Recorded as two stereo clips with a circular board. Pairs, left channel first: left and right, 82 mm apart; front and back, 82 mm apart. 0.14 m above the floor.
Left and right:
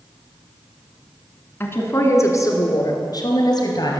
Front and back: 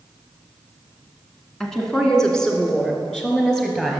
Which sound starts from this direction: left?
A woman speaking, at 1.6 s.